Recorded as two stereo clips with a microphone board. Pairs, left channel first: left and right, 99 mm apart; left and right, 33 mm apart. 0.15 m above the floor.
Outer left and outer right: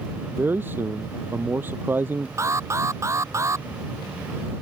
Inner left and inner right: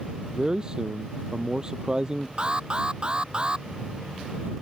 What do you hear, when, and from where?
0.3 s a man speaking: 20° right (ahead or behind)
2.4 s an alarm: 30° right (ahead or behind)